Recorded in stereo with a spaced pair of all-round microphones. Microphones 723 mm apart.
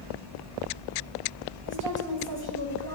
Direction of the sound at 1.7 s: 30° left (ahead or behind).